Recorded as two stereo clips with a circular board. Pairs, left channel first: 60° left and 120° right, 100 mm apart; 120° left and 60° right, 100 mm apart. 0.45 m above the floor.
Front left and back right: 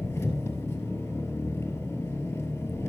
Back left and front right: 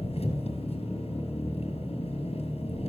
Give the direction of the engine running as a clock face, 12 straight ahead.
8 o'clock.